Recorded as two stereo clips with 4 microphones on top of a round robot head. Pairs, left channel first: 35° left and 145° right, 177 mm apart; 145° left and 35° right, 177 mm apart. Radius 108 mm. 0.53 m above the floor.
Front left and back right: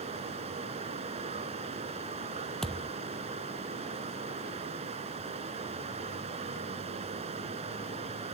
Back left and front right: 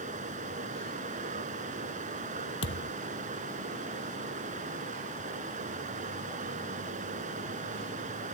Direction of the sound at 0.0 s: 85° right.